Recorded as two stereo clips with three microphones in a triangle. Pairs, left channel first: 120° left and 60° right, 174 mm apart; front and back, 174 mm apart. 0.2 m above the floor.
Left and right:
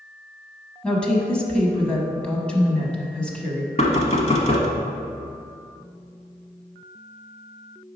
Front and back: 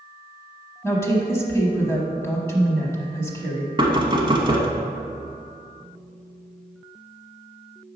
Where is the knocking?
135° left, 0.9 m.